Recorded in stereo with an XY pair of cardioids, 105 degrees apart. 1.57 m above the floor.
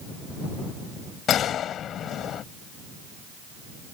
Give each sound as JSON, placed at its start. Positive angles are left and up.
{"t": 1.3, "sound": "a gunshot", "azimuth_deg": 65}